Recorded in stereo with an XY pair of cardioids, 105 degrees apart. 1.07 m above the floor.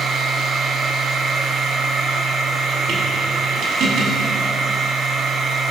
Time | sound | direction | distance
0.0 | a machine running | 65° right | 8.5 m